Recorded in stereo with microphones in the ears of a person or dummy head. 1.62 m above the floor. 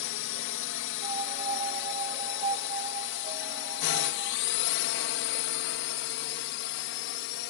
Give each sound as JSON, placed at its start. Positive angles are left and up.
{"t": 0.0, "sound": "a drone", "side_deg": 60}
{"t": 1.0, "sound": "a piano", "side_deg": -35}